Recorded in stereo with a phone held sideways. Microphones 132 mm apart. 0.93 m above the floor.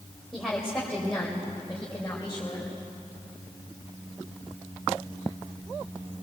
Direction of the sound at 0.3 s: Centre (ahead or behind).